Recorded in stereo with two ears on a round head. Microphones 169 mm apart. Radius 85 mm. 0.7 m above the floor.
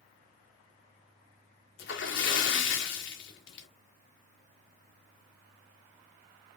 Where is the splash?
70° left (ahead or behind), 1.1 m.